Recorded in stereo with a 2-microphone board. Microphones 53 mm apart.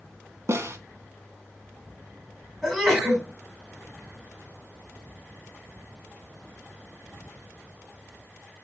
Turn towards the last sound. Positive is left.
turn(degrees=-5)  # may be behind; listen again after turning